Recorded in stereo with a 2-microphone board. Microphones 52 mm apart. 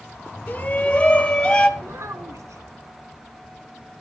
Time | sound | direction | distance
0.5 | a shout | 30° left (ahead or behind) | 1.6 m
1.8 | a child speaking | 65° right (ahead or behind) | 2 m